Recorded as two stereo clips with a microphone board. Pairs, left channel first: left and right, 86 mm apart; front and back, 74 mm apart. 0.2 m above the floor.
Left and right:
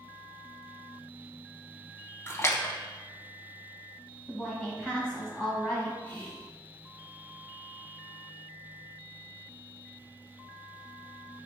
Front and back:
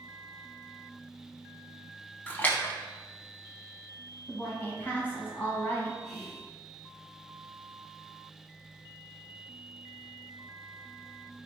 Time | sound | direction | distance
2.3 | a splash | 55° left | 0.5 m
4.3 | a woman speaking | 30° left | 1.2 m
6.0 | whispering | 85° left | 1.1 m